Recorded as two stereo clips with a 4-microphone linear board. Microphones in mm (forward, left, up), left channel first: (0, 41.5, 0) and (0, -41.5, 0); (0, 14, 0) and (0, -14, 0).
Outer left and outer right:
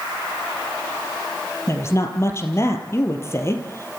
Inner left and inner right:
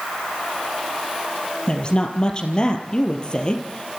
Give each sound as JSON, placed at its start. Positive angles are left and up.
{"t": 1.7, "sound": "a woman speaking", "side_deg": 30, "distance_m": 3.5}